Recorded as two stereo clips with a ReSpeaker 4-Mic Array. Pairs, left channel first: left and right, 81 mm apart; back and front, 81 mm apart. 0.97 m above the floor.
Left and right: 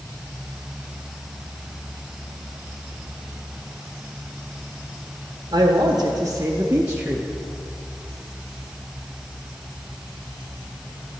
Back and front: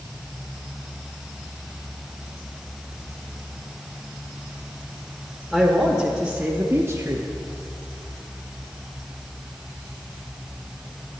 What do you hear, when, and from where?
5.5 s a man speaking: 95° right, 1.1 m; by 7.3 s 10° right, 0.7 m